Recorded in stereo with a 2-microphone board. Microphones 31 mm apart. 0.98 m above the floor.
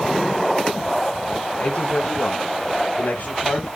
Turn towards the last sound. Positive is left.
turn(degrees=50)  # may be behind; listen again after turning